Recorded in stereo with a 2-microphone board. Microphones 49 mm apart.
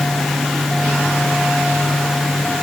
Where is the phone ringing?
I don't hear a phone ringing.